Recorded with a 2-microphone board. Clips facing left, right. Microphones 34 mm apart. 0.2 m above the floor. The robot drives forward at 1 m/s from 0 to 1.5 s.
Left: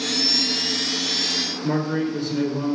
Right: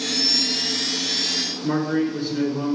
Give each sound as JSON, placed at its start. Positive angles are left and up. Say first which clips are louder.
{"t": 1.6, "sound": "a man speaking", "louder": "right 2 dB", "side_deg": -15, "distance_m": 2.5}